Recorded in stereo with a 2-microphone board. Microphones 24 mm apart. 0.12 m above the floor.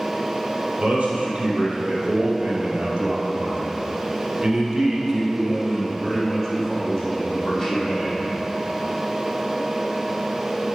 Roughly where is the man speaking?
Right.